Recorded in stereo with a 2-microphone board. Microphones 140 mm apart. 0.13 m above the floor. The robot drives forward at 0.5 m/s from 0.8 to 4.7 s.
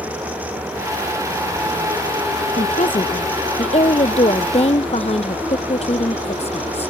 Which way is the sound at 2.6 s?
60° left (ahead or behind).